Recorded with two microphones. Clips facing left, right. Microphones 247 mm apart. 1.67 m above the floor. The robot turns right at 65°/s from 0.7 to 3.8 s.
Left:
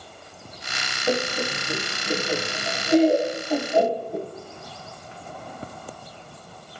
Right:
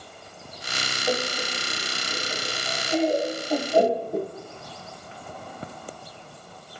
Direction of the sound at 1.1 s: 20° left (ahead or behind).